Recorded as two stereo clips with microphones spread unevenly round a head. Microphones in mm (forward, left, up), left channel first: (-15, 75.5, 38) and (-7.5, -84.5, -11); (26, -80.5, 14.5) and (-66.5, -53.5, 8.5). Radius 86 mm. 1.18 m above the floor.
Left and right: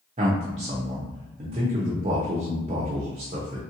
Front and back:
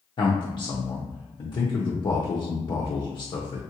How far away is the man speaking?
About 0.7 m.